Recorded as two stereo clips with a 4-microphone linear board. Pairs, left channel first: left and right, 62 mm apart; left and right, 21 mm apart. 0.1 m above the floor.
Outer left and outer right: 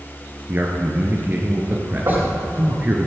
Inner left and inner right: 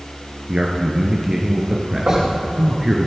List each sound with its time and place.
0.5 s a man speaking: 30° right (ahead or behind), 1.7 m
2.1 s knocking: 60° right (ahead or behind), 4 m